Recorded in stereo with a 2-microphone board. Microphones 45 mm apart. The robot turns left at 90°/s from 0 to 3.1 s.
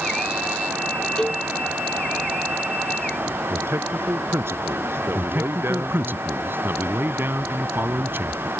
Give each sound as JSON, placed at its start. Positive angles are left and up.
{"t": 1.2, "sound": "a cowbell", "side_deg": 15}
{"t": 3.5, "sound": "a man speaking", "side_deg": -65}
{"t": 5.2, "sound": "a man speaking", "side_deg": -55}